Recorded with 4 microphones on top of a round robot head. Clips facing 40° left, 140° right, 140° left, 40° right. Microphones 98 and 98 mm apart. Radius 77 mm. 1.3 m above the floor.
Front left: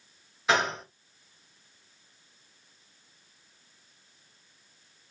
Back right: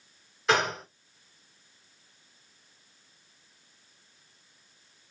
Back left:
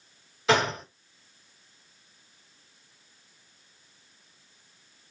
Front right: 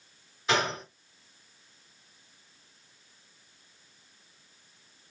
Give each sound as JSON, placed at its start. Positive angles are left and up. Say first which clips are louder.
{"t": 0.5, "sound": "a gunshot", "louder": "even, back left 4 dB", "azimuth_deg": 130, "distance_m": 3.5}